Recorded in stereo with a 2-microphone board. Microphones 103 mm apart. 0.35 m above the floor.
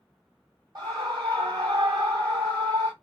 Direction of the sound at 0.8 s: 40° right (ahead or behind).